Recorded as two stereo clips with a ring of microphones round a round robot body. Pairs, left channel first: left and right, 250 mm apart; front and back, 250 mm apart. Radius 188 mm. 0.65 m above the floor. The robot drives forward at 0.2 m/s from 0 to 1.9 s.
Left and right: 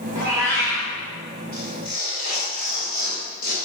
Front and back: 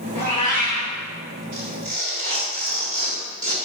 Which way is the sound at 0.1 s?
150° right.